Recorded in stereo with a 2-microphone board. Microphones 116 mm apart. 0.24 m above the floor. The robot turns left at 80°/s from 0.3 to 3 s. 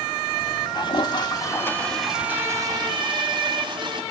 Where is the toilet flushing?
105° left, 0.9 m; by 4.0 s 75° right, 0.9 m.